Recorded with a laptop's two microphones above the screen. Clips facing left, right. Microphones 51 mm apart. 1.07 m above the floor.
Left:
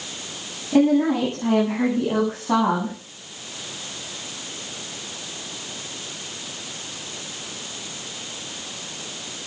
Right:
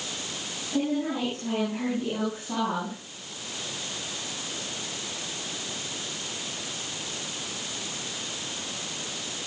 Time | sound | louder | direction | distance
0.7 | a woman speaking | left 10 dB | 65° left (ahead or behind) | 9.5 m